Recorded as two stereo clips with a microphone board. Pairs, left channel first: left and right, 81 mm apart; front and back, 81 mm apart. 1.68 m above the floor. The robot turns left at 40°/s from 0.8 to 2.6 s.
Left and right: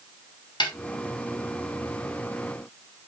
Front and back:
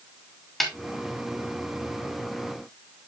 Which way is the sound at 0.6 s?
90° left.